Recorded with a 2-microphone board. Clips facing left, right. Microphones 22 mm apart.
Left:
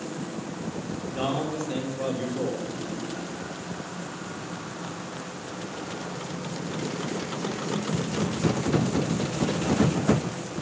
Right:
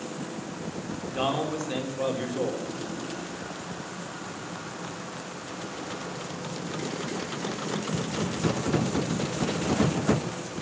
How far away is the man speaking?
About 4.5 m.